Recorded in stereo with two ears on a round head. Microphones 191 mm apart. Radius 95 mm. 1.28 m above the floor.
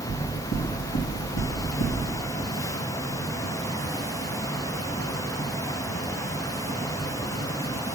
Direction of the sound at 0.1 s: 90° left.